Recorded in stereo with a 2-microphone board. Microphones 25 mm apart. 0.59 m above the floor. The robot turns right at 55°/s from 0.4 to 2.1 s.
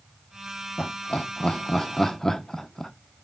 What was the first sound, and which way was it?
Laughter, 45° left (ahead or behind).